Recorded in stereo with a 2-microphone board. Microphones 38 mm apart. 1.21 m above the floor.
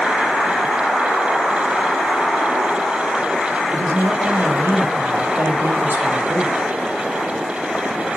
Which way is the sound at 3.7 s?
70° right (ahead or behind).